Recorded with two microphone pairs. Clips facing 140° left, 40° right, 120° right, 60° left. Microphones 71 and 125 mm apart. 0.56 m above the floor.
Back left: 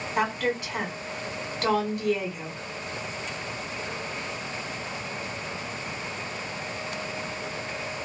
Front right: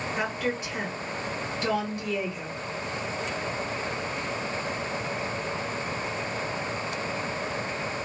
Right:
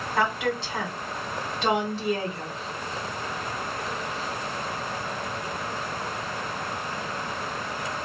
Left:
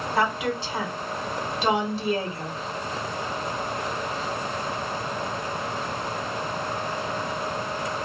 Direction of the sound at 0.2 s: 145° left.